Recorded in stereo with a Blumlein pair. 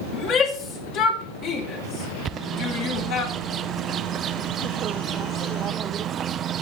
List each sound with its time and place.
0.1 s a shout: 35° left, 3 m
2.2 s a bird: 25° right, 0.7 m